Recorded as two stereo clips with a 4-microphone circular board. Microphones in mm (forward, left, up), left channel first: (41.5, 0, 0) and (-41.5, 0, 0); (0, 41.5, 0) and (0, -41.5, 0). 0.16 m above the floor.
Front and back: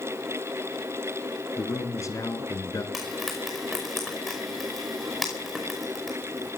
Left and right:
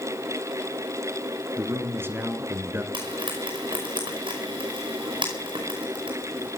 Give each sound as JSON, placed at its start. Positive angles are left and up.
{"t": 1.6, "sound": "a man speaking", "azimuth_deg": -35, "distance_m": 1.9}
{"t": 2.9, "sound": "frying", "azimuth_deg": -90, "distance_m": 5.0}